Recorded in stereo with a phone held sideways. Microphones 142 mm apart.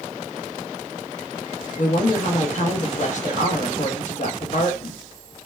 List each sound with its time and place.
1.8 s a woman speaking: 60° left (ahead or behind), 0.7 m